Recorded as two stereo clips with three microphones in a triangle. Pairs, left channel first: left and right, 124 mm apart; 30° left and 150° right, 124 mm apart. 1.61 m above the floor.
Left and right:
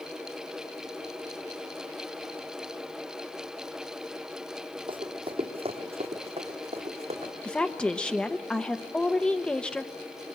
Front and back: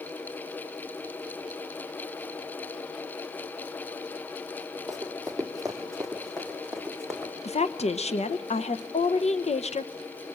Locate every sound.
4.9 s running footsteps: 60° right, 3 m; by 7.3 s 55° right, 5.5 m
7.4 s a woman speaking: 10° left, 1.0 m